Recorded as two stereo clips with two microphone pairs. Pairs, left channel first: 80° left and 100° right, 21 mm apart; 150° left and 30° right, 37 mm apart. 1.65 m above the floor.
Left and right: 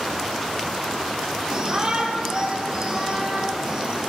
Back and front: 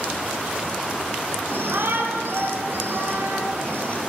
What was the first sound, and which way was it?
A shout, 45° right.